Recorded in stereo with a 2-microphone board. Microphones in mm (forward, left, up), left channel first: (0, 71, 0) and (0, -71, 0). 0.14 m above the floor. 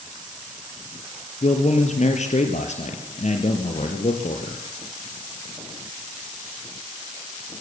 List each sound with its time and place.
1.4 s a man speaking: 55° left (ahead or behind), 3 m